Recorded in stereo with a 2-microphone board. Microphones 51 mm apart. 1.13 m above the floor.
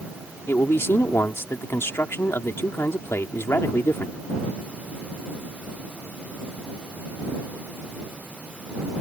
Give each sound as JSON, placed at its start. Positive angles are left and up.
{"t": 0.5, "sound": "a man speaking", "side_deg": 55}